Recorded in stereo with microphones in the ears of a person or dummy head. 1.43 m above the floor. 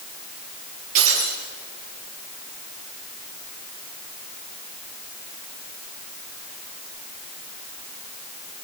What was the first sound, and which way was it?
Breaking glass, 45° right (ahead or behind).